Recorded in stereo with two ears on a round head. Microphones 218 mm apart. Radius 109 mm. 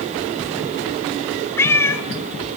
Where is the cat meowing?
10° left (ahead or behind), 1.5 m.